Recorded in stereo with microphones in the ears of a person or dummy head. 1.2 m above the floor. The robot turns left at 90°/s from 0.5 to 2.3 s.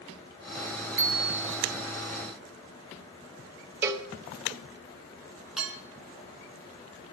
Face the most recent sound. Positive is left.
turn(degrees=-5)  # may be behind; listen again after turning